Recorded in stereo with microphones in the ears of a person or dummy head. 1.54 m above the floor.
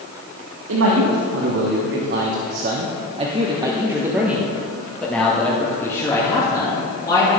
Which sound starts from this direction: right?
A man speaking, at 0.7 s.